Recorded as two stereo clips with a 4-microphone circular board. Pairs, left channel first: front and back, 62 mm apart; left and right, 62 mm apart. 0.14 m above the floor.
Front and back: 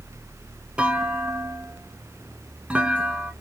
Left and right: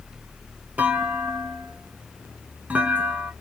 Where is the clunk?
125° right, 0.7 m.